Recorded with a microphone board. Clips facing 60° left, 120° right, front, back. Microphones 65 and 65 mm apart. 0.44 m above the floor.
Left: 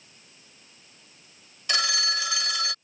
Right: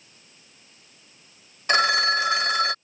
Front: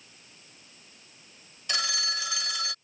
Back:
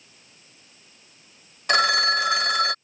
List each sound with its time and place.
1.7 s a phone ringing: 165° right